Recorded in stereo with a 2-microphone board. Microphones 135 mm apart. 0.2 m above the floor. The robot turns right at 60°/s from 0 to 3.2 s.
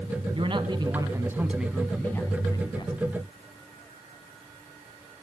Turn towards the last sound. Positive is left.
turn(degrees=90)